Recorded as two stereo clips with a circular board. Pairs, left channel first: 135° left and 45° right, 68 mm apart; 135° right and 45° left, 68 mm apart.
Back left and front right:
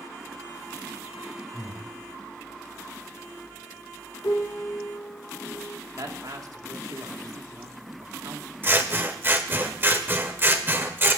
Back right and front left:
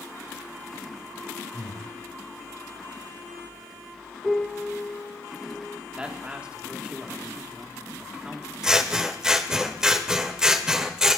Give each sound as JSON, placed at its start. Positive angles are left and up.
{"t": 1.5, "sound": "breathing", "azimuth_deg": 55, "distance_m": 9.5}
{"t": 4.2, "sound": "a piano", "azimuth_deg": 135, "distance_m": 2.5}
{"t": 6.0, "sound": "a man speaking", "azimuth_deg": -25, "distance_m": 2.5}
{"t": 8.6, "sound": "scissors", "azimuth_deg": -30, "distance_m": 1.3}